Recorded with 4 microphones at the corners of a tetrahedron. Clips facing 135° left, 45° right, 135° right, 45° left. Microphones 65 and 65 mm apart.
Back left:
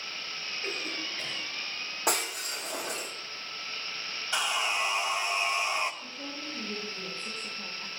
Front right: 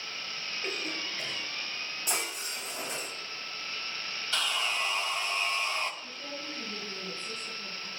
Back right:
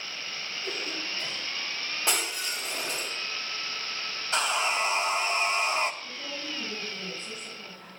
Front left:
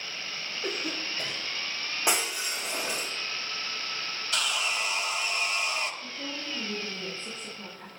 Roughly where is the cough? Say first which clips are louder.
Even, front left 3 dB; ahead left.